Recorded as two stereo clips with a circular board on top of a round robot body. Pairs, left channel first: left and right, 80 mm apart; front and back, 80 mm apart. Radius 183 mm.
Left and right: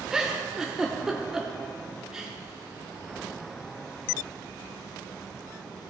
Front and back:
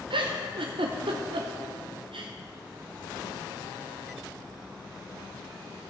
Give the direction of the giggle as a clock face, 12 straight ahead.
6 o'clock.